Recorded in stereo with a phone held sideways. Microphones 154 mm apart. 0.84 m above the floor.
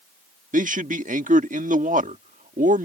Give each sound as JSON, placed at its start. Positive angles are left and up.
{"t": 0.5, "sound": "a man speaking", "side_deg": -60}